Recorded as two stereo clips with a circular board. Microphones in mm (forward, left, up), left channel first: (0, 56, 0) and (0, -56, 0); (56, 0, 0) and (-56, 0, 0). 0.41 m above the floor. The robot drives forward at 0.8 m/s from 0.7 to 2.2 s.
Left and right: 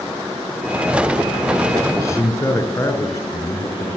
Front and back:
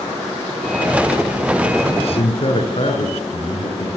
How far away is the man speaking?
About 6 m.